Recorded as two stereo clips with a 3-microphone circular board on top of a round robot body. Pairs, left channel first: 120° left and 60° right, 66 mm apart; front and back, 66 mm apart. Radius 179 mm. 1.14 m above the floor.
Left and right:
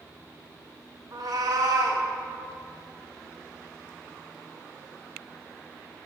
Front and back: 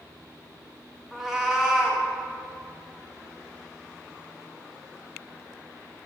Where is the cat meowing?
95° right, 0.9 m.